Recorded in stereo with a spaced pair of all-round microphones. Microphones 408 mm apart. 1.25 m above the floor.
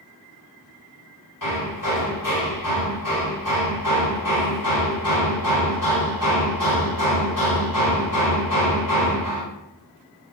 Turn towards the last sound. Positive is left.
turn(degrees=50)  # may be behind; listen again after turning